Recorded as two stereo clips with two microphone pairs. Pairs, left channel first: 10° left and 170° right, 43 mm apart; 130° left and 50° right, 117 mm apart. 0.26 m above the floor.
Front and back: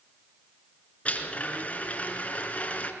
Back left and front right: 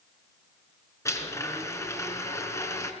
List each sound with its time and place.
1.1 s a blender: 65° left, 3.5 m